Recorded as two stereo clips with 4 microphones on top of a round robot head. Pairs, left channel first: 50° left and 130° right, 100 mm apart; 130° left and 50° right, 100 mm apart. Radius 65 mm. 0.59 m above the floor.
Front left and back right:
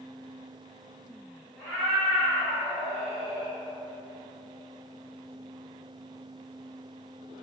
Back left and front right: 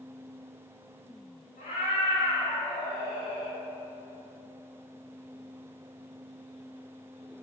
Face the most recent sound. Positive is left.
turn(degrees=150)